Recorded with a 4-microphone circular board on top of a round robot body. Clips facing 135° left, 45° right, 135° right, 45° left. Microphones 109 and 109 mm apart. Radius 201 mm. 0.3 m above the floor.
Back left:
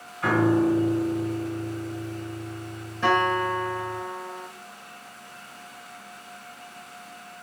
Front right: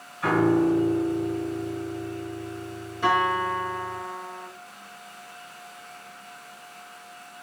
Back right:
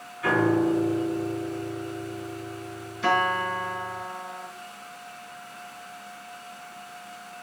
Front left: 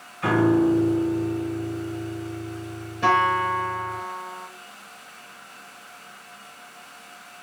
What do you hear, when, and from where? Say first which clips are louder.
0.2 s a piano: even, front left 3 dB; 40° left, 2.0 m
3.0 s a guitar: back left 1 dB, front left 4 dB; 25° left, 3.5 m